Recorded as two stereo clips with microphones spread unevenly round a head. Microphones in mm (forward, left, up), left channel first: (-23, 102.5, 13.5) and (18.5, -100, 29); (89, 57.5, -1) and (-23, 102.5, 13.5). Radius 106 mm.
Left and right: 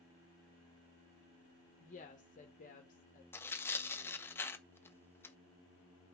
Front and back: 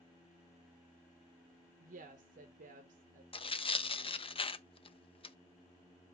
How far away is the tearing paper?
About 0.9 m.